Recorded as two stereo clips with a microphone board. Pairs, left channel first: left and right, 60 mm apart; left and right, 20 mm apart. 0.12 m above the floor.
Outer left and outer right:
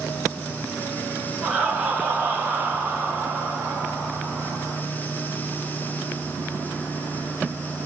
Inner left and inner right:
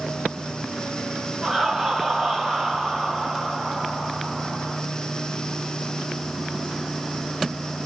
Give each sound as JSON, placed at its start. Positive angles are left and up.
{"t": 1.4, "sound": "laughter", "side_deg": -25, "distance_m": 1.6}